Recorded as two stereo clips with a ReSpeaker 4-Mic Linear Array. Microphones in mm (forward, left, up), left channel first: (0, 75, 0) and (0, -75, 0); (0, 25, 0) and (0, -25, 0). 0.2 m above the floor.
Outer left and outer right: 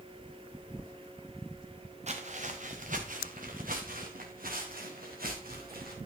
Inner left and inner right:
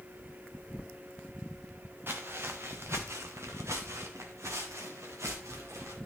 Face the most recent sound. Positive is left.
turn(degrees=-75)  # may be behind; listen again after turning